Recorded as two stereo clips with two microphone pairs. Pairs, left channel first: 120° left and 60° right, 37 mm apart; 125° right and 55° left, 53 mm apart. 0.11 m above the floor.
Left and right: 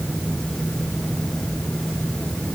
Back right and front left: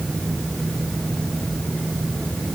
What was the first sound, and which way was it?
Only background noise.